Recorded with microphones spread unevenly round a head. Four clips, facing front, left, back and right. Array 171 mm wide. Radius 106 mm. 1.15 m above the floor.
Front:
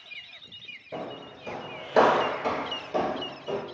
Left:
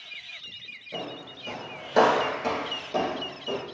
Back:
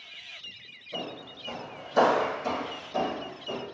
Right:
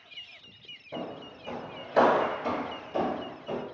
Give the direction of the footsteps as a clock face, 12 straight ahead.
3 o'clock.